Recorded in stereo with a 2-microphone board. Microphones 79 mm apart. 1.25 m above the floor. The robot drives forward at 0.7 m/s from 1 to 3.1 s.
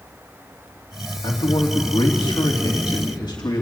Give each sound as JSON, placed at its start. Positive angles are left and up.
{"t": 1.2, "sound": "a man speaking", "side_deg": 80, "distance_m": 3.0}